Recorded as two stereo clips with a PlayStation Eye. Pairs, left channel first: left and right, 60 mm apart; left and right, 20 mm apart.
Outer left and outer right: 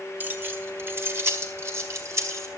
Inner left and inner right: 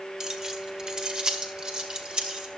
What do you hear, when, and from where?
0.2 s keys jangling: 35° right (ahead or behind), 1.5 m; by 2.5 s 55° right (ahead or behind), 2.5 m